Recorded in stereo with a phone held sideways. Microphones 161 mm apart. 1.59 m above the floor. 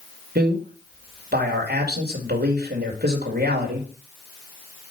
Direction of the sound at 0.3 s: 75° right (ahead or behind).